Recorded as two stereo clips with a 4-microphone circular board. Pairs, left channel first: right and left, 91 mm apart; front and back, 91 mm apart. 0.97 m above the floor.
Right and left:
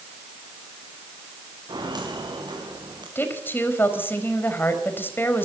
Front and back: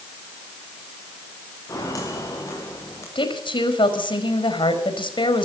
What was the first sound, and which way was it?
Footsteps, 50° left.